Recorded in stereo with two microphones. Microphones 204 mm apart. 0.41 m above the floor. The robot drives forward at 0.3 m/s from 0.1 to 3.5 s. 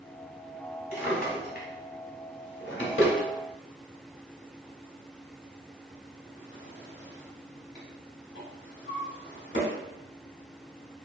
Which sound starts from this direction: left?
A drawer, at 0.9 s.